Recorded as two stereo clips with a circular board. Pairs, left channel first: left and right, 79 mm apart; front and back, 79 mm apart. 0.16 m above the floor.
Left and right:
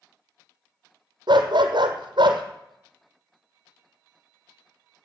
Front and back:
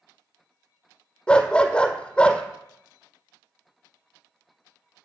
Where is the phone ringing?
No phone ringing in this recording.